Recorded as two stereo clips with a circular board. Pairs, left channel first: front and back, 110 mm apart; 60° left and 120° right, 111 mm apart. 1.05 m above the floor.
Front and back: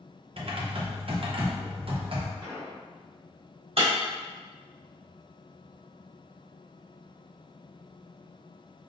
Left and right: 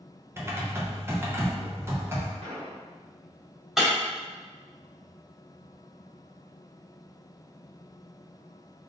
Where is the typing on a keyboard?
175° left, 0.6 m.